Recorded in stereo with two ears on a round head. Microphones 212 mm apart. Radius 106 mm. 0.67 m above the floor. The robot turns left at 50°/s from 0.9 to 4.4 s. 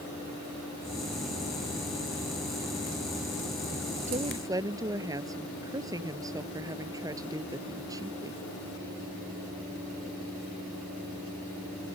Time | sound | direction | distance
4.1 | a woman speaking | 30° right (ahead or behind) | ?